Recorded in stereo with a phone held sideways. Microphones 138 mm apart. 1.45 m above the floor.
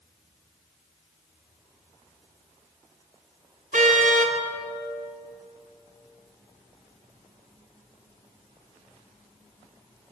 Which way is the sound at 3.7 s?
70° right (ahead or behind).